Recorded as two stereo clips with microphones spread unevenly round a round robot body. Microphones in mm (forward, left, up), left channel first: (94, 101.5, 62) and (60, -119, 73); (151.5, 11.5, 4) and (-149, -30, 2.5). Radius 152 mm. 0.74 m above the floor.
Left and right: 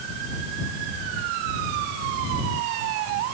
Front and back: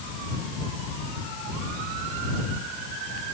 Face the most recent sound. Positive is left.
No sound to turn to.